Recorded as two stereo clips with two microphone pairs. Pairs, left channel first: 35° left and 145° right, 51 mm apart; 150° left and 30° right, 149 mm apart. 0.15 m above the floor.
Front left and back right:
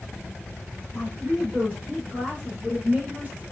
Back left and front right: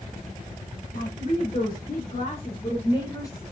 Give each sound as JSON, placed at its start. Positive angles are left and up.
{"t": 0.9, "sound": "a woman speaking", "azimuth_deg": 155, "distance_m": 3.0}